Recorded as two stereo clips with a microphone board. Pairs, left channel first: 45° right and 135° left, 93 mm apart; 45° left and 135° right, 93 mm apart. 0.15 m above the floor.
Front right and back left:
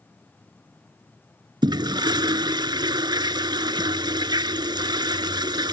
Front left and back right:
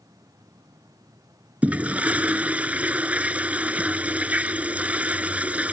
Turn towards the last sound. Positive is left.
turn(degrees=155)